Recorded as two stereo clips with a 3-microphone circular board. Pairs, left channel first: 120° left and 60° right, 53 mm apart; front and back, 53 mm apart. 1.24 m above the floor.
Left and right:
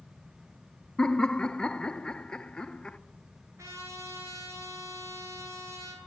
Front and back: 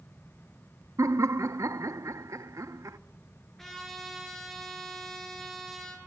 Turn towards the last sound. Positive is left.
turn(degrees=-85)